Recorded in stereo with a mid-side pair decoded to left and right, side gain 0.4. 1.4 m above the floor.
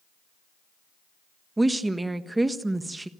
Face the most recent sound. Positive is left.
turn(degrees=-20)